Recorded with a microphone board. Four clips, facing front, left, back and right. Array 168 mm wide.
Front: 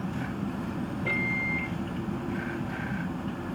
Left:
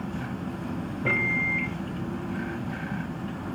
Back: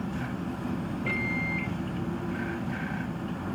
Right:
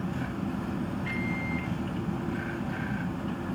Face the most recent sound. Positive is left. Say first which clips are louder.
# left 4 dB, even
turn(degrees=80)